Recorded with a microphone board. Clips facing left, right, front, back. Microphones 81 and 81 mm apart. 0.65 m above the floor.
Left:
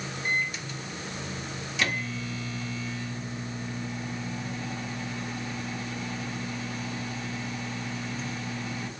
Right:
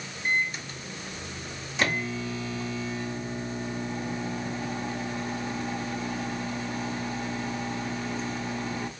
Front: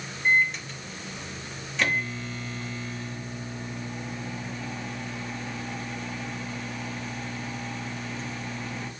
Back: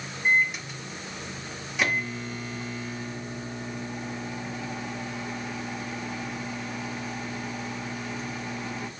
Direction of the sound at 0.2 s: 105° right.